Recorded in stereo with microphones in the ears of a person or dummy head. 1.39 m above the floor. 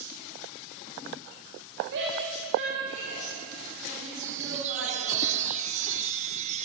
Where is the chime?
40° right (ahead or behind), 0.9 m.